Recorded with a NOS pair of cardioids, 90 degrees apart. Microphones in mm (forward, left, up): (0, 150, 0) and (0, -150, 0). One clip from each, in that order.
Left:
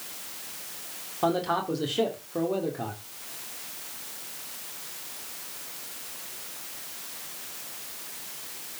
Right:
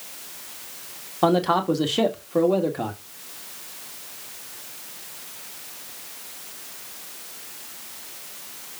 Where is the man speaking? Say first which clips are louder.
Right 6 dB; 45° right, 2.5 m.